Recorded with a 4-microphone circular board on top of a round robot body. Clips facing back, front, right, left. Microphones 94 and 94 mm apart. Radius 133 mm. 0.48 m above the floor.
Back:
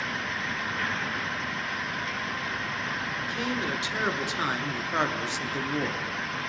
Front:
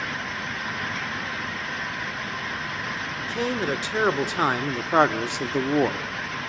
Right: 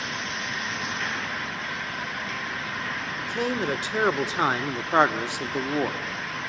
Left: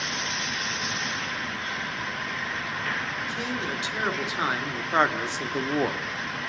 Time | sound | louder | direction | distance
3.2 | a man speaking | front 6 dB, right 4 dB | 55° right | 1.8 m